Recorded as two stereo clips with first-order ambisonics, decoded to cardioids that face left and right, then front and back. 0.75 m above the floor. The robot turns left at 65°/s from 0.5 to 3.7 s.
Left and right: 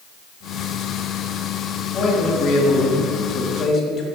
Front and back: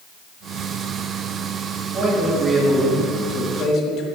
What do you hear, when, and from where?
1.9 s a man speaking: 150° left, 1.4 m; by 4.0 s 35° left, 1.4 m